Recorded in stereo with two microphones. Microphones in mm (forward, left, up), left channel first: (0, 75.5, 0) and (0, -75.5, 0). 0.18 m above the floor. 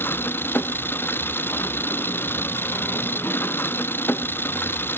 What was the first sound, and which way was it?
An engine running, 15° left (ahead or behind).